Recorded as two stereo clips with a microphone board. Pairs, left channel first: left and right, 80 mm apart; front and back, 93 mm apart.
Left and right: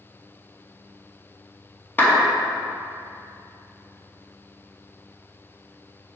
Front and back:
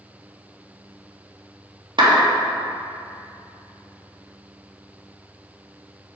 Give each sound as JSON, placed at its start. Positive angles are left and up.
{"t": 2.0, "sound": "a clap", "azimuth_deg": 155, "distance_m": 2.0}